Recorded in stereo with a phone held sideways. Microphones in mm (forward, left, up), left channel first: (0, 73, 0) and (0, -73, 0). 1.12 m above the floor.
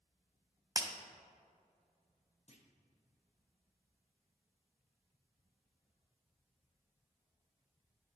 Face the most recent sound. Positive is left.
turn(degrees=50)  # may be behind; listen again after turning